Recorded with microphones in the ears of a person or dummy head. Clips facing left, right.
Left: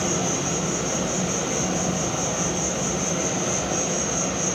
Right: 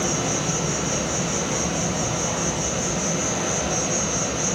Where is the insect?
45° left (ahead or behind), 1.0 m.